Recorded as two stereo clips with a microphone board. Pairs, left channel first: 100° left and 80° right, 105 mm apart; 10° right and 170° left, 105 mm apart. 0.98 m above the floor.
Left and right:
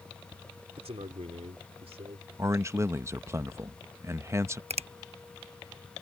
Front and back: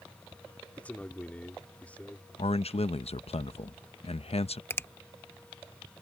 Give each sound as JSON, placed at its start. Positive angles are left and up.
{"t": 0.8, "sound": "a man speaking", "azimuth_deg": -85}
{"t": 2.4, "sound": "a man speaking", "azimuth_deg": -15}
{"t": 4.7, "sound": "a finger snap", "azimuth_deg": -80}